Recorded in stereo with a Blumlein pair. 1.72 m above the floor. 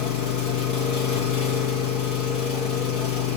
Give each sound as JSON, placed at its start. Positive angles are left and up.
{"t": 0.0, "sound": "an engine running", "azimuth_deg": 40, "distance_m": 1.7}